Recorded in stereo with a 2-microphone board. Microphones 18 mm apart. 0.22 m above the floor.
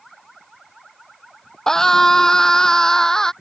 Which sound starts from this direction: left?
A scream, at 1.7 s.